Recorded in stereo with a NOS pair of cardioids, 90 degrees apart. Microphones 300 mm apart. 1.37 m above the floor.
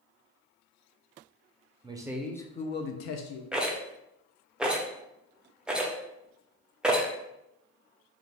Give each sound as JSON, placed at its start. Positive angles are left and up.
{"t": 1.8, "sound": "a man speaking", "azimuth_deg": -15, "distance_m": 0.7}
{"t": 3.5, "sound": "a rattle", "azimuth_deg": -5, "distance_m": 0.6}